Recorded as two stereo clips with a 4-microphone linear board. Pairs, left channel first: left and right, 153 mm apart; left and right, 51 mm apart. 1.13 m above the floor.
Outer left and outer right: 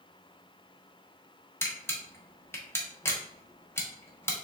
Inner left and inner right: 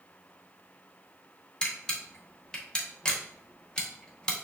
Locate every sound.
1.6 s a camera shutter: 15° left (ahead or behind), 0.8 m